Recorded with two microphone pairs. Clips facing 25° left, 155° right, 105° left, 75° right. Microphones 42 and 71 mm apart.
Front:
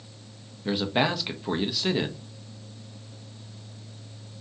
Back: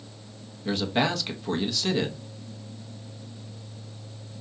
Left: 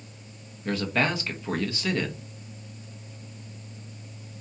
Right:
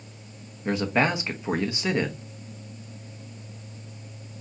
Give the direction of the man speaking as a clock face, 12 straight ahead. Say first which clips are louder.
Even, right 3 dB; 1 o'clock.